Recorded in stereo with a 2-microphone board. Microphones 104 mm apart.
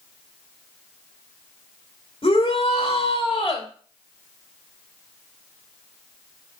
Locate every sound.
2.2 s a shout: 60° left (ahead or behind), 3 m